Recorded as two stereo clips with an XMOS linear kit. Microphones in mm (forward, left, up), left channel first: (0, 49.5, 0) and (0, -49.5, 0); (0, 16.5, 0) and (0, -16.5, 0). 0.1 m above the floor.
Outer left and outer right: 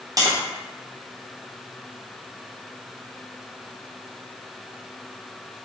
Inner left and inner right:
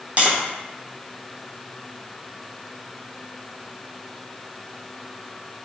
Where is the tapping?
35° right (ahead or behind), 1.0 m.